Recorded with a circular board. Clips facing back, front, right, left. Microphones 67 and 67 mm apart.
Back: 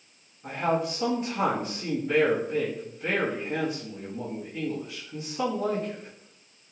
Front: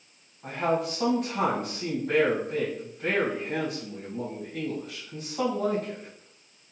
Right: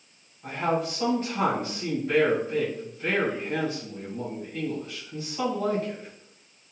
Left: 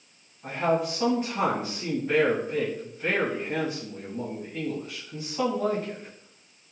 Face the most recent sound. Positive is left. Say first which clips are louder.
# even, left 2 dB
turn(degrees=0)